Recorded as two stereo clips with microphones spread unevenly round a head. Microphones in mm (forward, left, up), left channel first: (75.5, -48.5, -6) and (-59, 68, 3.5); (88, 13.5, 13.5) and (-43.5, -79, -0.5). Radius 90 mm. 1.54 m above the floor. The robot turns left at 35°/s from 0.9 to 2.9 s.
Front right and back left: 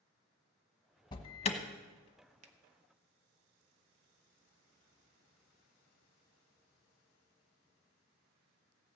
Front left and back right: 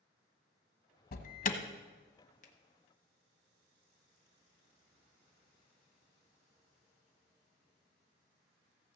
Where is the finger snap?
85° left, 1.0 m; by 2.5 s 80° left, 1.0 m.